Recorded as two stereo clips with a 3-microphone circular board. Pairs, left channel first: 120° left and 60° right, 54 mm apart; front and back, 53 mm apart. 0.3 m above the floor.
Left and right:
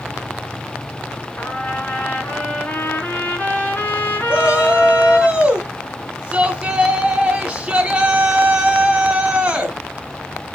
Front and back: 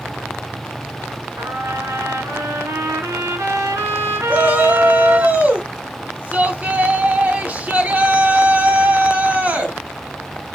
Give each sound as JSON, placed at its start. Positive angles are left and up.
{"t": 1.4, "sound": "a trumpet", "azimuth_deg": 175, "distance_m": 3.0}
{"t": 4.3, "sound": "a shout", "azimuth_deg": -125, "distance_m": 3.0}